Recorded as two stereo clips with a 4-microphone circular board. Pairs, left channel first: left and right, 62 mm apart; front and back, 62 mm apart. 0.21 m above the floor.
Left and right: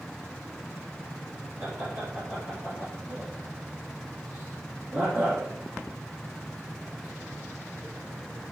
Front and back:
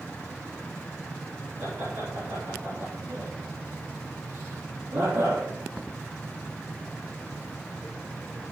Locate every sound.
1.6 s laughter: 145° right, 3.5 m